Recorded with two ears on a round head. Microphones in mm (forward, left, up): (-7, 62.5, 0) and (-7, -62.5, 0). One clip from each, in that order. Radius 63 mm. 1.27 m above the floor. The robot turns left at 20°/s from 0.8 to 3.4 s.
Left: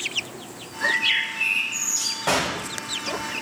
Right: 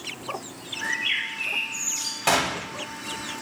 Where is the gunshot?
50° right (ahead or behind), 1.2 m.